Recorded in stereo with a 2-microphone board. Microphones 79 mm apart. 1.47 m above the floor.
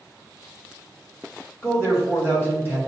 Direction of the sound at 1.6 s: 25° left (ahead or behind).